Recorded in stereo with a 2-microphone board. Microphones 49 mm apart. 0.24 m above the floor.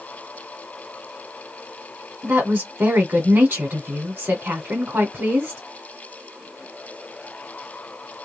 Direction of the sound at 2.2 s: 40° right (ahead or behind).